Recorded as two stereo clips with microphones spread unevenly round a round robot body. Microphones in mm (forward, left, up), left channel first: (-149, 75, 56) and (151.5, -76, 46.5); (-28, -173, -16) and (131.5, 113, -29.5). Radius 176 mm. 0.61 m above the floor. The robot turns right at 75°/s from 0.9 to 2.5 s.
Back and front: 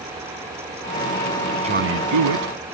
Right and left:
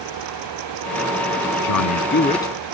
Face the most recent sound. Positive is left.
turn(degrees=-35)